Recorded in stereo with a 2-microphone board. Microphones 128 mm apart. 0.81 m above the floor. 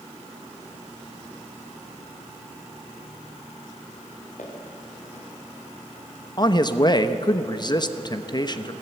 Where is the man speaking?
35° left (ahead or behind), 1.0 m.